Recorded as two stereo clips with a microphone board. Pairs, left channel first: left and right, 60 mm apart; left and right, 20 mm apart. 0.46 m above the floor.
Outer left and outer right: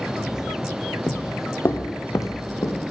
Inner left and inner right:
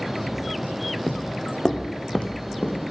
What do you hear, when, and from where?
1.1 s footsteps: 30° left (ahead or behind), 0.5 m; by 2.8 s 70° left (ahead or behind), 2 m